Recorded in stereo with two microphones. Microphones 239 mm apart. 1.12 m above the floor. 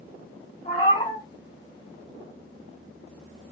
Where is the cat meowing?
30° left (ahead or behind), 1.7 m.